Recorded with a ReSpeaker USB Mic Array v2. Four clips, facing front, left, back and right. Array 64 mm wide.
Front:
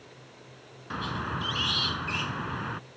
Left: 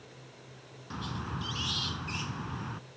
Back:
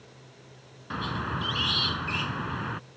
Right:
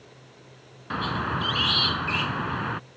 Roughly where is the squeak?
Right.